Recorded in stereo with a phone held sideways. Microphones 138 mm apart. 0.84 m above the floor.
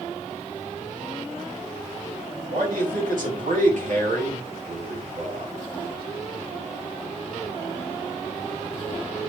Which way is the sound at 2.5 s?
80° right.